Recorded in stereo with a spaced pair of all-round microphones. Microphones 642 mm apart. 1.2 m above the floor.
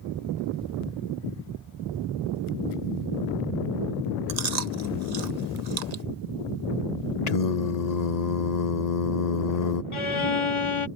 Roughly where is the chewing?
Right.